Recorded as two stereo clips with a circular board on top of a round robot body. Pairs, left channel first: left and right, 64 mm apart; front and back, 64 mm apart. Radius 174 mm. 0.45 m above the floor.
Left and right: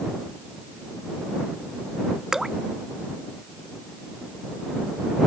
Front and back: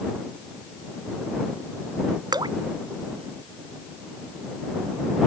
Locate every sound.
2.3 s dripping: 175° right